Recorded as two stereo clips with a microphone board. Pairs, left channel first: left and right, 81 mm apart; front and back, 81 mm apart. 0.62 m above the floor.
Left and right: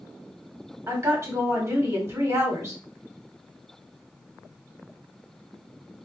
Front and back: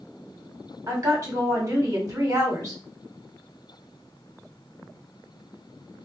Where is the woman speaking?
135° right, 1.5 m.